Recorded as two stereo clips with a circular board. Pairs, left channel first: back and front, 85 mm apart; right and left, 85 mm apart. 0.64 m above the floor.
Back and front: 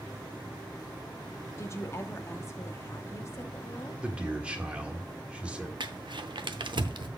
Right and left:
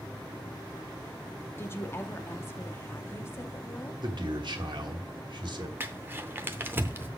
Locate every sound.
1.6 s a woman speaking: 140° right, 0.8 m
4.0 s a man speaking: 75° left, 1.4 m
5.8 s crumpling: 25° left, 0.7 m